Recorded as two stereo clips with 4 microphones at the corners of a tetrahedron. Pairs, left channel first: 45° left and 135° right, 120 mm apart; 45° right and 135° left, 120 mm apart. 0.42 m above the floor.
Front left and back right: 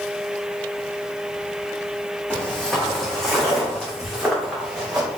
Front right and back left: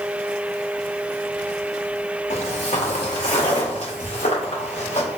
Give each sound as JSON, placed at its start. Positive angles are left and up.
{"t": 2.3, "sound": "footsteps", "azimuth_deg": -35, "distance_m": 1.2}